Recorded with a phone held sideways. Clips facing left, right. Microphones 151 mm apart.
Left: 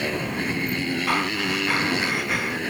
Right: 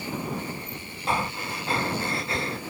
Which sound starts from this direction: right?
Breathing, at 1.1 s.